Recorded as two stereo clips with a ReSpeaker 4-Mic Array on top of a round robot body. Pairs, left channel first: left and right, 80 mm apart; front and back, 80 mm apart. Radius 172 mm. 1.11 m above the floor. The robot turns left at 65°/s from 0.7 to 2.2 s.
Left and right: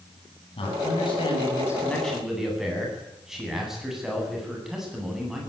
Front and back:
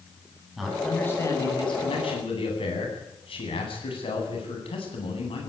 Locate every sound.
0.6 s a man speaking: 90° left, 9 m; by 5.5 s 5° right, 9 m